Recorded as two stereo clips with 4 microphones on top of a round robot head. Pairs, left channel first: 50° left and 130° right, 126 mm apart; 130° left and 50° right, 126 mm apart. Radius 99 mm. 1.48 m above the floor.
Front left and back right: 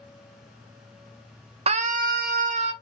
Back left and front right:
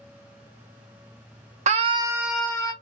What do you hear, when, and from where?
1.7 s a scream: 85° right, 0.6 m; by 2.7 s 160° right, 0.7 m